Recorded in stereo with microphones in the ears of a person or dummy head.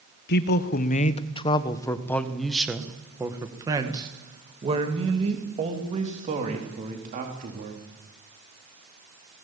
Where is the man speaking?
55° left (ahead or behind), 1.4 m; by 7.8 s 40° right (ahead or behind), 4 m.